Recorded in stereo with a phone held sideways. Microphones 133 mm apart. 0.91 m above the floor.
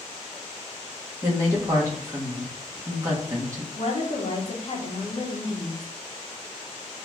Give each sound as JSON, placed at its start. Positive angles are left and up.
{"t": 1.2, "sound": "a woman speaking", "side_deg": -25, "distance_m": 1.3}
{"t": 3.8, "sound": "a woman speaking", "side_deg": 50, "distance_m": 1.1}